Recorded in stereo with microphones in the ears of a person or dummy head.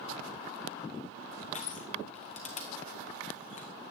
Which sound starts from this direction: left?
Crushing, at 1.5 s.